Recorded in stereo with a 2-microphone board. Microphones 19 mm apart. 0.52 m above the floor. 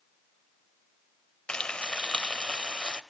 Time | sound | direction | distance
1.5 | frying | 60° left (ahead or behind) | 0.7 m